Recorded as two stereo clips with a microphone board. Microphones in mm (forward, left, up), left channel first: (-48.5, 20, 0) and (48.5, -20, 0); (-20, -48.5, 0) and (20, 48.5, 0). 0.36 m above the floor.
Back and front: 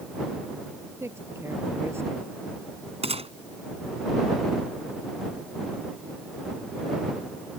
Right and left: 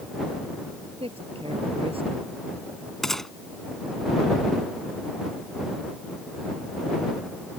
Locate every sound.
1.0 s a man speaking: 45° left
3.0 s a gunshot: 25° right